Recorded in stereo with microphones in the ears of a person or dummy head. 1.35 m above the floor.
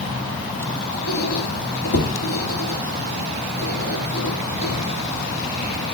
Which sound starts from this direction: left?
A squeak, at 1.1 s.